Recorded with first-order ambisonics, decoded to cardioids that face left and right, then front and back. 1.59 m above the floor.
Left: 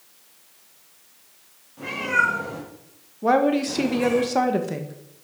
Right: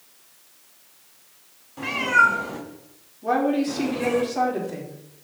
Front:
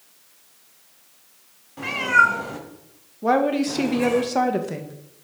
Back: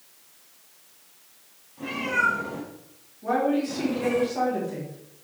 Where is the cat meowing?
30° right, 3 m; by 4.2 s 20° left, 3.5 m.